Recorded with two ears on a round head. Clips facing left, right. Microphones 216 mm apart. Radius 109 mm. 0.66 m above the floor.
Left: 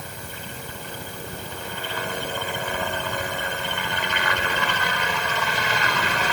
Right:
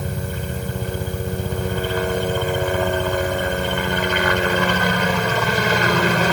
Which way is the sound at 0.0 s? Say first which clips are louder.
Right 10 dB; 40° right (ahead or behind).